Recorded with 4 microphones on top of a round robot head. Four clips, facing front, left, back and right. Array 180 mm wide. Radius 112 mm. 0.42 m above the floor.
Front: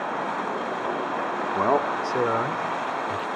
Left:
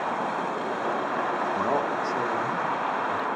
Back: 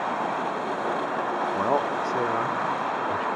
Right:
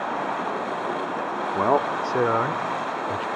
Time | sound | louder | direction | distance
1.6 | a man speaking | right 9 dB, front 4 dB | 60° right | 0.8 m